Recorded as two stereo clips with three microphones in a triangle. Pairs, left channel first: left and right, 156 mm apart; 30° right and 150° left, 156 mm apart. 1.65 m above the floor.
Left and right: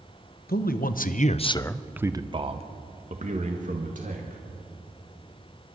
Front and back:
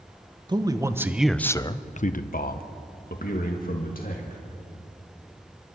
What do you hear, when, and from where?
0.5 s a man speaking: 90° left, 1.3 m; by 4.4 s 60° right, 3 m